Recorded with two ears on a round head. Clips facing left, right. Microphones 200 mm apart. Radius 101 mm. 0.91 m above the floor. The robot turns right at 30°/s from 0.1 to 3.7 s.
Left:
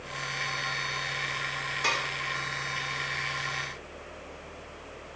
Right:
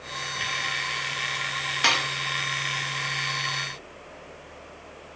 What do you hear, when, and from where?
1.8 s dishes clattering: 70° right (ahead or behind), 0.7 m; by 2.1 s 60° right (ahead or behind), 0.7 m